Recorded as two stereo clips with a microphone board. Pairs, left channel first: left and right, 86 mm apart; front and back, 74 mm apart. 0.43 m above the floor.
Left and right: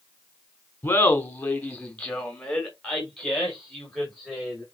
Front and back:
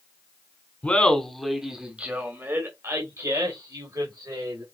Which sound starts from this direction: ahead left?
Laughter, at 0.8 s.